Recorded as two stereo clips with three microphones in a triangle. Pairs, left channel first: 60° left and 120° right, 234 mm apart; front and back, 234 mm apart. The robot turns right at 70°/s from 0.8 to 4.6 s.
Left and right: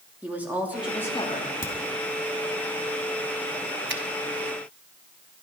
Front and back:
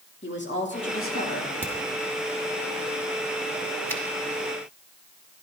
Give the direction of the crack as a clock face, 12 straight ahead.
9 o'clock.